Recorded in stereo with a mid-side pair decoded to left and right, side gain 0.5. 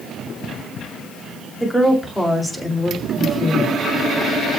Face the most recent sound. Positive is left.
turn(degrees=-15)